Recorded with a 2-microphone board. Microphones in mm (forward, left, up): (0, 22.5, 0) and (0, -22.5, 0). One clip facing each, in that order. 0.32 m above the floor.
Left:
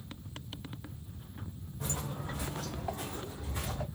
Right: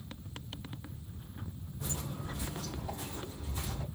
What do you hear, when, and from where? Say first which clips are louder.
1.8 s footsteps: left 2 dB; 65° left (ahead or behind), 1.3 m; by 3.9 s 80° left, 2 m